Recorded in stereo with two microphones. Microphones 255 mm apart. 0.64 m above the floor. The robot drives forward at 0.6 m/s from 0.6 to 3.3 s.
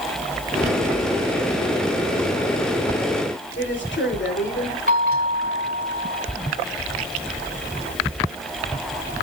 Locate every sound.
3.6 s a woman speaking: 45° left (ahead or behind), 2.5 m
4.9 s a bell: 35° right (ahead or behind), 2.5 m